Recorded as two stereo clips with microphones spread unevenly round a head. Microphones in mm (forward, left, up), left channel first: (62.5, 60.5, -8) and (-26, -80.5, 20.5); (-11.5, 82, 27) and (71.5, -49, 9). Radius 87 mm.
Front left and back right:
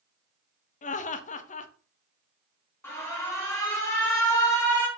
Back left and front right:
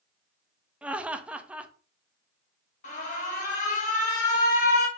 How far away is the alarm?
About 1.3 m.